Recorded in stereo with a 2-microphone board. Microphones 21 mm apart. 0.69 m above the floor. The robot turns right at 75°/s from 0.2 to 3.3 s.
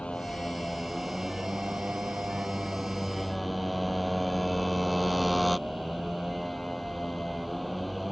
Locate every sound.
0.0 s a motorcycle: 130° left; by 8.1 s 5° left